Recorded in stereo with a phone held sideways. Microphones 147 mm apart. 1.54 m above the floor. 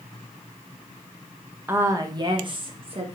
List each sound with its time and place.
1.7 s a woman speaking: 15° right (ahead or behind), 0.7 m; by 3.2 s 45° right (ahead or behind), 1.3 m